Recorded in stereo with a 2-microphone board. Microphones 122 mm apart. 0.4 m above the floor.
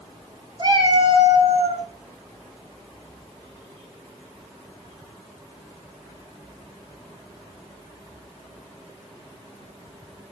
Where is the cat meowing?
45° right (ahead or behind), 1.9 m; by 1.9 s 60° right (ahead or behind), 1.7 m.